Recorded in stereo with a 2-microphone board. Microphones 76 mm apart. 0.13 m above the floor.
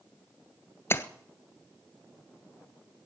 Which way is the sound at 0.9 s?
35° left (ahead or behind).